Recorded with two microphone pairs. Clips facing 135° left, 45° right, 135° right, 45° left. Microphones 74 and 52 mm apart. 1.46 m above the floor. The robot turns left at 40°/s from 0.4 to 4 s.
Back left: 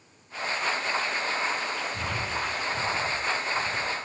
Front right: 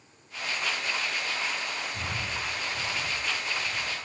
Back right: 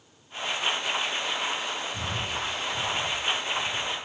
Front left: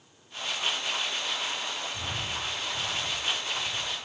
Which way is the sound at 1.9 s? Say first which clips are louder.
Back left 3 dB, back right 3 dB; 165° right.